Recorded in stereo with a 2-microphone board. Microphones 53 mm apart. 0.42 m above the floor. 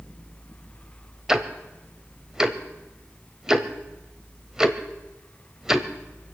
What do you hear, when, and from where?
1.3 s ticking: 10° right (ahead or behind), 0.9 m